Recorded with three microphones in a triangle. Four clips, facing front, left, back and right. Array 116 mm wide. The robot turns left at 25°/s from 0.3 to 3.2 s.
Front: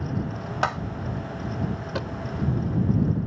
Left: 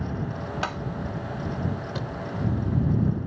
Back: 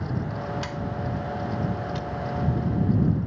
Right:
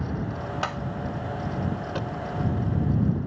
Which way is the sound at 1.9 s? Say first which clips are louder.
Right 2 dB, front 1 dB; 20° right.